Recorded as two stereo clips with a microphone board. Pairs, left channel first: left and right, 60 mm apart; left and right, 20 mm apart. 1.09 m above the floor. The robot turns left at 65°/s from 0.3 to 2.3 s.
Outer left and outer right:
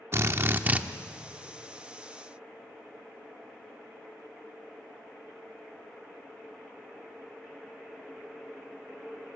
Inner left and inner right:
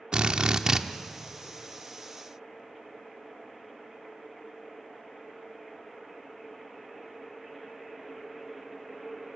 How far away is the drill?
About 0.9 m.